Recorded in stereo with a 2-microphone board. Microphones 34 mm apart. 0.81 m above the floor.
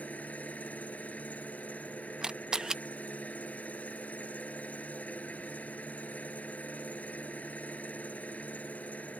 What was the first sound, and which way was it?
An engine running, 45° left (ahead or behind).